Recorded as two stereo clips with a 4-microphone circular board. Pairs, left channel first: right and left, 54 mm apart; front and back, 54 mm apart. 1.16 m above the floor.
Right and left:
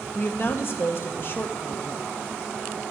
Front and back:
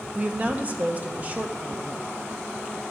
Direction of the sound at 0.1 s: 125° right.